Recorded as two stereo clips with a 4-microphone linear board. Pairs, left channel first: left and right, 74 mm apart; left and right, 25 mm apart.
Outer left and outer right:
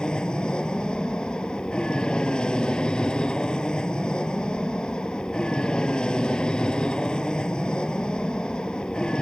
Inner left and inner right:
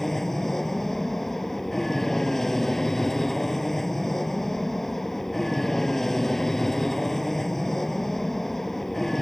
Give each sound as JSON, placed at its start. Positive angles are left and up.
{"t": 0.0, "sound": "an aircraft", "side_deg": 10}